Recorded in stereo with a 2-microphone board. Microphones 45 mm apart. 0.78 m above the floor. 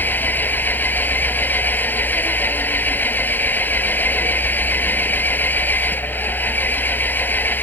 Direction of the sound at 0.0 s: 50° left (ahead or behind).